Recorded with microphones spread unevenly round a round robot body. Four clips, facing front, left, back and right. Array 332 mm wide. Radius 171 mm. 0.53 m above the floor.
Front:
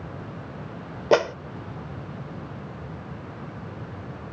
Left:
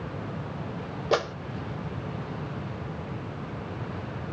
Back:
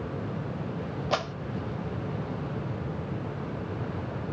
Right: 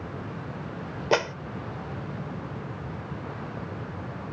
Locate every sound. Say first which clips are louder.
1.1 s a clap: right 1 dB, front 11 dB; straight ahead